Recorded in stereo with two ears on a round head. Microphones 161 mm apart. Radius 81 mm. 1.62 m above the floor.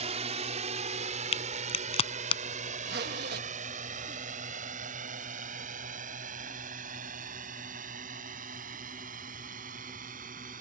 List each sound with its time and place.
0.0 s a drone: 40° right (ahead or behind); by 10.6 s 50° right (ahead or behind)
1.3 s a crack: 35° left (ahead or behind)
2.8 s a zipper: 60° right (ahead or behind)